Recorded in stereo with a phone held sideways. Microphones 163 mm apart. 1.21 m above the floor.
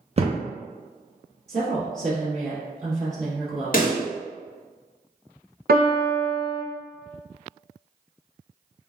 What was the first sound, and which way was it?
A thud, 40° right (ahead or behind).